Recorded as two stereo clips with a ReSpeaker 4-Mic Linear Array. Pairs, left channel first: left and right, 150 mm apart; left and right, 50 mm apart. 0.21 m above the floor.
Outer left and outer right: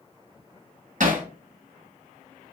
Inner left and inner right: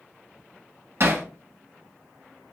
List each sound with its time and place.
1.0 s hammering: 60° right (ahead or behind), 1.2 m